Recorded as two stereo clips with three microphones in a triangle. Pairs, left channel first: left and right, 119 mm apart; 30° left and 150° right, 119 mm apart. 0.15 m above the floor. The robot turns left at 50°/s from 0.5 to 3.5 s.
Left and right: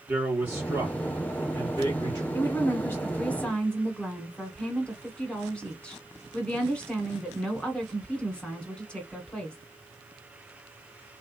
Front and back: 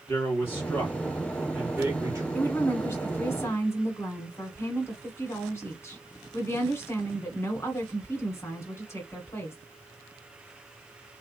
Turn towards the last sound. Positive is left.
turn(degrees=25)